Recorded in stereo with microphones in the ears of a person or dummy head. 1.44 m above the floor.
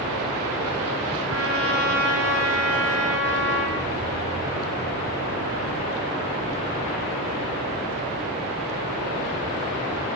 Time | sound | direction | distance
1.3 | a trumpet | 75° right (ahead or behind) | 7.5 m